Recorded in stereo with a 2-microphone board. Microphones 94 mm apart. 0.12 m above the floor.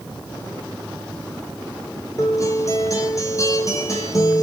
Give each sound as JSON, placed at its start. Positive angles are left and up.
{"t": 2.2, "sound": "a guitar", "side_deg": 35, "distance_m": 1.5}